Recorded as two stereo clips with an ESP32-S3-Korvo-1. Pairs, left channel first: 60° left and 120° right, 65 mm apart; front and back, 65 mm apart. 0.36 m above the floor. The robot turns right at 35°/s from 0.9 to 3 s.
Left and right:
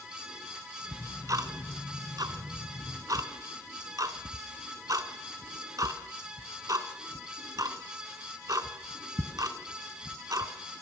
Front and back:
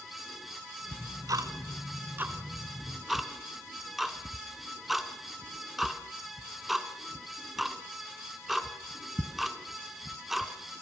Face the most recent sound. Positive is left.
turn(degrees=-95)